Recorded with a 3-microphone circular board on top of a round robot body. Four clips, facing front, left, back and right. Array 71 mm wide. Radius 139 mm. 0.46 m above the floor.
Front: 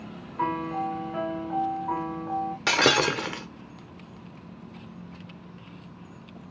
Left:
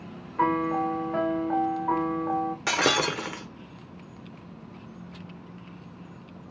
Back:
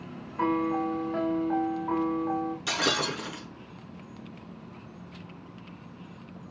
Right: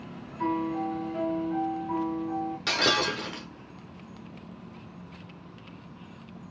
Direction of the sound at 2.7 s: 25° left.